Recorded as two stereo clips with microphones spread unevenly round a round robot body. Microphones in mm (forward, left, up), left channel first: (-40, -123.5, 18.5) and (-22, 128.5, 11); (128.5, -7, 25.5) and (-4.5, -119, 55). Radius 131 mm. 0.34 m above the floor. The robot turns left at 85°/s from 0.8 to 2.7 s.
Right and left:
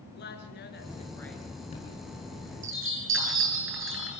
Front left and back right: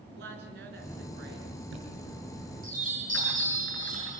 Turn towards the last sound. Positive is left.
turn(degrees=120)